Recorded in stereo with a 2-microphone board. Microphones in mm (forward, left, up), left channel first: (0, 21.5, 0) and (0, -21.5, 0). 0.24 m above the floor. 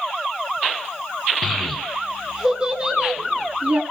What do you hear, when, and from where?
1.4 s a child speaking: 5° left (ahead or behind), 1.6 m; by 3.8 s 35° right (ahead or behind), 2 m